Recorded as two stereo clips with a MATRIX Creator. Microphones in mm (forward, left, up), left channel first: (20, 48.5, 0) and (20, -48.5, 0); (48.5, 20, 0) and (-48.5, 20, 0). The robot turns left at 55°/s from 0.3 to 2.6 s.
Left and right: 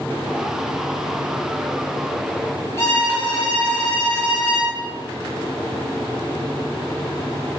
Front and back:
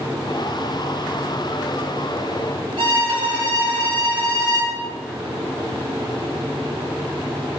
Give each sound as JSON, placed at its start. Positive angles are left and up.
{"t": 2.8, "sound": "a violin", "azimuth_deg": 150, "distance_m": 4.5}